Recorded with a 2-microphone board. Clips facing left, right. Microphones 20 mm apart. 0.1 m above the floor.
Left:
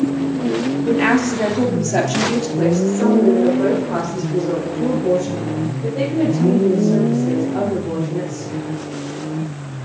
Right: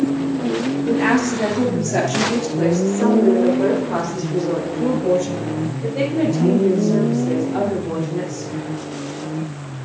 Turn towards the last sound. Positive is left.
turn(degrees=-30)  # may be behind; listen again after turning